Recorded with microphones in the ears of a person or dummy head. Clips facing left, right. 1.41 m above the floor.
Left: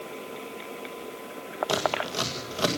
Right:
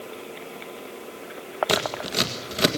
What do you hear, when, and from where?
1.7 s scissors: 30° right (ahead or behind), 2.0 m